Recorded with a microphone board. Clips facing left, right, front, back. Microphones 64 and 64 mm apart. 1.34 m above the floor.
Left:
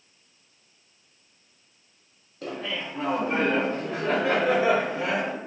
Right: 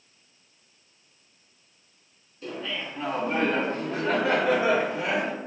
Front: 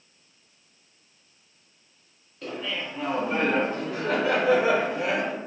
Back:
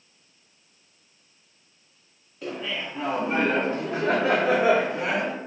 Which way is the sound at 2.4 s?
95° left.